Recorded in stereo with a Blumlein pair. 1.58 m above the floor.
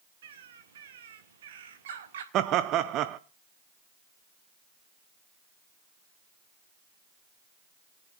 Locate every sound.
0.2 s a bird: 60° right, 1.5 m
2.3 s laughter: 35° right, 0.5 m